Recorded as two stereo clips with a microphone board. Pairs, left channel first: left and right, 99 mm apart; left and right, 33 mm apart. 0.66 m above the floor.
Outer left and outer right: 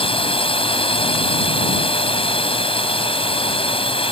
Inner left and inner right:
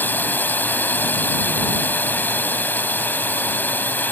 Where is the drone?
75° left (ahead or behind).